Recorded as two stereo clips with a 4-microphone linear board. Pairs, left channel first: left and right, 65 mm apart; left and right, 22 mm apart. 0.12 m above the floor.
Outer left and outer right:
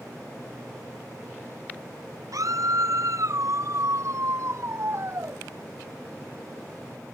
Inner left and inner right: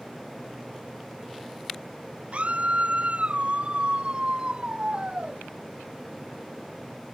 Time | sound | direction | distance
2.3 | a scream | 60° right (ahead or behind) | ?